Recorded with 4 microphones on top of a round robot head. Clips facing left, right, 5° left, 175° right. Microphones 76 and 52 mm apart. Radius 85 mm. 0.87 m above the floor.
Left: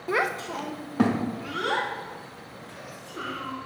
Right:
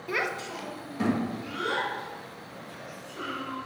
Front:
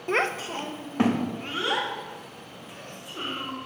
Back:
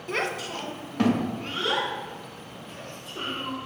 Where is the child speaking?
45° left, 0.5 m; by 3.5 s 80° left, 2.5 m.